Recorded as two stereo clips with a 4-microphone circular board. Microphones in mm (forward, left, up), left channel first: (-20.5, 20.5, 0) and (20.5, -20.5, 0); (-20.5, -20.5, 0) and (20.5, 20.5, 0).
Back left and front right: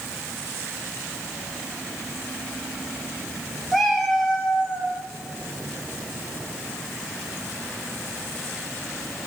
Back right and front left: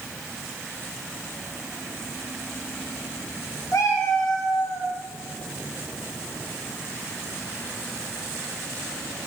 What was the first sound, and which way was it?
A cat meowing, 130° right.